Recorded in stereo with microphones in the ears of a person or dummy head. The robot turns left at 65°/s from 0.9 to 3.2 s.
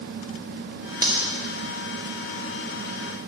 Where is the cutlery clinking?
20° right (ahead or behind), 1.6 m; by 1.2 s 5° right (ahead or behind), 1.6 m.